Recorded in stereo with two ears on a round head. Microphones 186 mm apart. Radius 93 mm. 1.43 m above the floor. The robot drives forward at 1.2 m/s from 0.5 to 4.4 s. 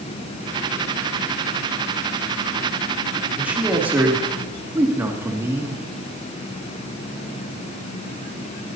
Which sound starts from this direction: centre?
A man speaking, at 3.4 s.